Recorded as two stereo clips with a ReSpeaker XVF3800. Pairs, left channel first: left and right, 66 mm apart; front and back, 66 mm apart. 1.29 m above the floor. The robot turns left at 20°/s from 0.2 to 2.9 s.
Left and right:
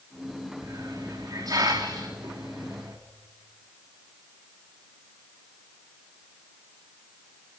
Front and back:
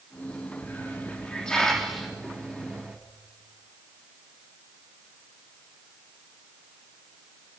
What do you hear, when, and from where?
0.6 s a hiss: 60° right, 3.5 m; by 3.0 s 105° right, 3.5 m